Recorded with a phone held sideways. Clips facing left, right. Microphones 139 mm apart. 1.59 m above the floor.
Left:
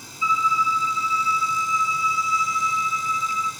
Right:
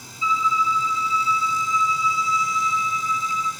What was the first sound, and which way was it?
A violin, 30° right (ahead or behind).